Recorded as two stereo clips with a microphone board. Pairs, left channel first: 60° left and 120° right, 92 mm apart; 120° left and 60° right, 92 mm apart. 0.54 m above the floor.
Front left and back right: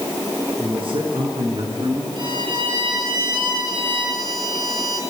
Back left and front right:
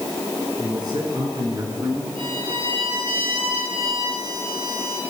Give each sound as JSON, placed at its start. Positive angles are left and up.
{"t": 0.6, "sound": "a man speaking", "azimuth_deg": -100, "distance_m": 7.0}
{"t": 2.2, "sound": "a violin", "azimuth_deg": -85, "distance_m": 7.0}